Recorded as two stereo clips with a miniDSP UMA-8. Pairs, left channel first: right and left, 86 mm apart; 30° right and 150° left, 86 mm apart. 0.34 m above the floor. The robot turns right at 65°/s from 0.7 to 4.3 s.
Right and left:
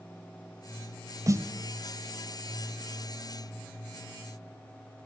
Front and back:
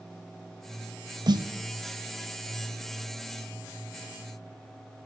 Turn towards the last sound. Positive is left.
turn(degrees=-30)